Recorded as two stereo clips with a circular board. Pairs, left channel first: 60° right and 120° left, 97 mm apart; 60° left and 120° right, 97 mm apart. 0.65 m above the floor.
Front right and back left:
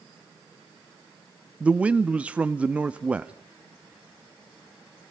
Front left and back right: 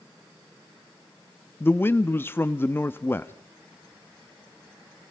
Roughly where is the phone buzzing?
No phone buzzing in this recording.